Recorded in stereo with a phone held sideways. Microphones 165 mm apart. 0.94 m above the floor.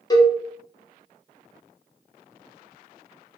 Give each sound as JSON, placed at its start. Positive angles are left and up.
{"t": 0.1, "sound": "a cowbell", "side_deg": 25, "distance_m": 0.6}